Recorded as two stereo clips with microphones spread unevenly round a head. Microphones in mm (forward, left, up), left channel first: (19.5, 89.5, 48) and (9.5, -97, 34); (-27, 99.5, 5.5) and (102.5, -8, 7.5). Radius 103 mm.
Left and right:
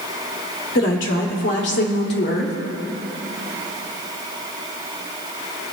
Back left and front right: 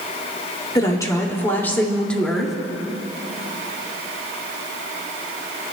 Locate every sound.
0.8 s a woman speaking: 75° left, 2.5 m; by 2.5 s 50° left, 2 m